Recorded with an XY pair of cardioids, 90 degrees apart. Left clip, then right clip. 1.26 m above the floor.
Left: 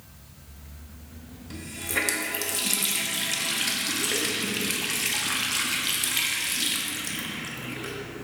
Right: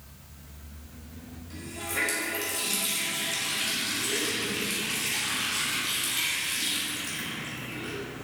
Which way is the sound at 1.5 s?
55° left.